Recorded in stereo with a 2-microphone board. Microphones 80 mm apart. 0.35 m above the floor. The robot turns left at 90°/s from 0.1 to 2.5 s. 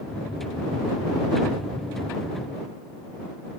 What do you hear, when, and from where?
Only background noise.